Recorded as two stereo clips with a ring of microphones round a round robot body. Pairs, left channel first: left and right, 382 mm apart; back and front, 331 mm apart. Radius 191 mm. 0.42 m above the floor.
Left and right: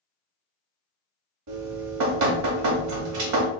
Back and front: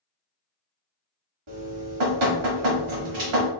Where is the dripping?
40° right, 0.9 m.